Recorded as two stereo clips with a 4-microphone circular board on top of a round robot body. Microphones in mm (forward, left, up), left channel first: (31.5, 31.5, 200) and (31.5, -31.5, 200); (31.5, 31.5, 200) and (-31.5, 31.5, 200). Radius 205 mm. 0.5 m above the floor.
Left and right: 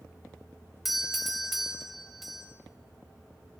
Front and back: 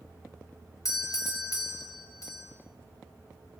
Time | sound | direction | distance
0.8 | a doorbell | 5° right | 3 m